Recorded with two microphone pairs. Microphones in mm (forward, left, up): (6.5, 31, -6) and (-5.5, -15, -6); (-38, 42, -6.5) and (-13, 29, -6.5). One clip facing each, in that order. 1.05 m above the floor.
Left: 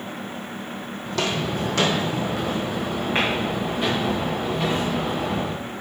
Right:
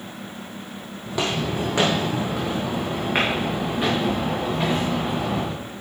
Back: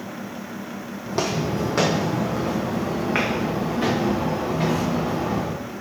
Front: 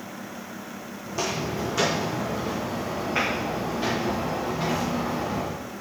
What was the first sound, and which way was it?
Footsteps, straight behind.